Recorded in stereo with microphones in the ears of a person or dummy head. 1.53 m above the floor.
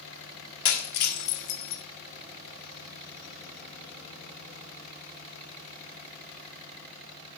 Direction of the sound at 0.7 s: 60° left (ahead or behind).